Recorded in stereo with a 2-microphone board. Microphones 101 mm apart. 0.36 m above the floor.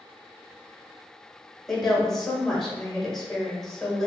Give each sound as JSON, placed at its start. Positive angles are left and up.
{"t": 1.7, "sound": "a woman speaking", "side_deg": 5, "distance_m": 1.1}